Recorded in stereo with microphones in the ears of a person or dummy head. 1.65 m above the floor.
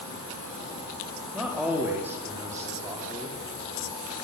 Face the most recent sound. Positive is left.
turn(degrees=-25)  # may be behind; listen again after turning